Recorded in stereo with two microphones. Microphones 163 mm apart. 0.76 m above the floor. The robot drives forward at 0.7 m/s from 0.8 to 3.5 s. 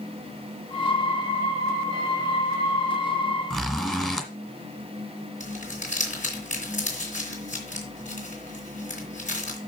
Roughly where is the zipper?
Centre.